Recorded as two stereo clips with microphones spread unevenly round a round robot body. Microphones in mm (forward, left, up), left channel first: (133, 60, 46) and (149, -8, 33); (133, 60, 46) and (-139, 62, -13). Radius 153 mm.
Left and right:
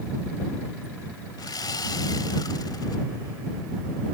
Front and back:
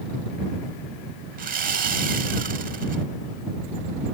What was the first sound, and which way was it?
Sawing, 130° left.